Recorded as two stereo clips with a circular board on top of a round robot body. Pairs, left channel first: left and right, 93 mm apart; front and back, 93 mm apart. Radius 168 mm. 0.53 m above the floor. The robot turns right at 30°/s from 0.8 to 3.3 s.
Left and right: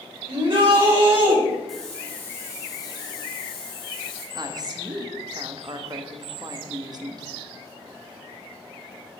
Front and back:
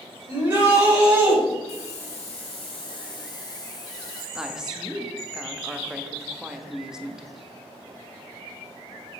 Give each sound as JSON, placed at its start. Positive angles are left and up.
{"t": 0.3, "sound": "a shout", "azimuth_deg": -110, "distance_m": 4.0}
{"t": 1.7, "sound": "a hiss", "azimuth_deg": 0, "distance_m": 1.3}
{"t": 4.3, "sound": "a woman speaking", "azimuth_deg": -100, "distance_m": 1.4}